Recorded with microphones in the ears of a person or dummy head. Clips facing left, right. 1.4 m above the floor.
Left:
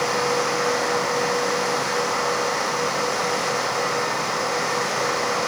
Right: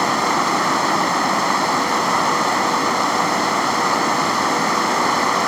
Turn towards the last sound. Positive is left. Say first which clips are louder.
# right 2 dB
turn(degrees=-75)  # may be behind; listen again after turning